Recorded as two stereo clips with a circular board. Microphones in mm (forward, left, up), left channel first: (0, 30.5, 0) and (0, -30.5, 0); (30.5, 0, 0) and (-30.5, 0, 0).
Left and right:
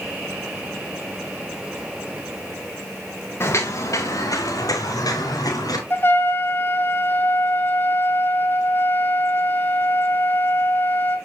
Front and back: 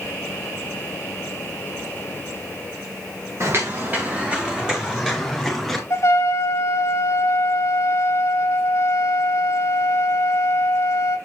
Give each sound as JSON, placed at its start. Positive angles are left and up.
{"t": 3.4, "sound": "footsteps", "azimuth_deg": 135, "distance_m": 2.0}
{"t": 5.9, "sound": "a trumpet", "azimuth_deg": 40, "distance_m": 0.9}